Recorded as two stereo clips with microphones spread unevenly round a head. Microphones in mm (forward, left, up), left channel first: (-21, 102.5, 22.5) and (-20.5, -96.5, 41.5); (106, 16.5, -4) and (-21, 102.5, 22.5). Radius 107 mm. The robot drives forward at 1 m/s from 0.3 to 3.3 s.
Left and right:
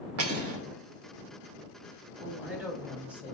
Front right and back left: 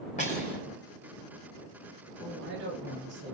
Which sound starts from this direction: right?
Cutlery clinking, at 0.2 s.